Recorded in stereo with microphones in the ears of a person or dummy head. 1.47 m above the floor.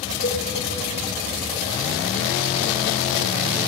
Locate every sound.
0.2 s a cowbell: 60° left (ahead or behind), 6 m